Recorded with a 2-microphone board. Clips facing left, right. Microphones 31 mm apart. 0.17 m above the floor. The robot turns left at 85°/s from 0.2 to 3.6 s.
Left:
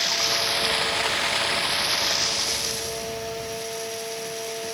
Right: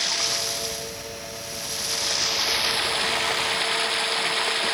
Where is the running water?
175° left; by 4.7 s 115° right.